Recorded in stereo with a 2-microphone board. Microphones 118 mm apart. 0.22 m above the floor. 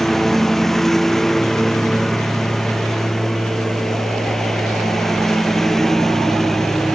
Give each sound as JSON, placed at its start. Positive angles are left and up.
{"t": 0.0, "sound": "a lawn mower", "side_deg": 0}